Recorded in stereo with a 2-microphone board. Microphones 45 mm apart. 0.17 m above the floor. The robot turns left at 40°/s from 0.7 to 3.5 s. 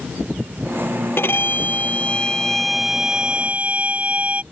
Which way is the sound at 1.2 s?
60° left.